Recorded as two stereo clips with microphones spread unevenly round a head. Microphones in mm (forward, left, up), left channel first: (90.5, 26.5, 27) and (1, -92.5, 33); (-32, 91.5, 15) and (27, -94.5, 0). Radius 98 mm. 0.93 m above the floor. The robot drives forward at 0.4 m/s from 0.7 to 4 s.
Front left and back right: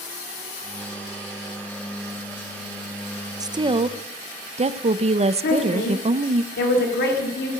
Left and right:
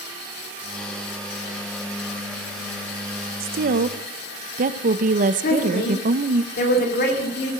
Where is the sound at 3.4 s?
65° right, 0.6 m; by 6.4 s 95° right, 0.6 m.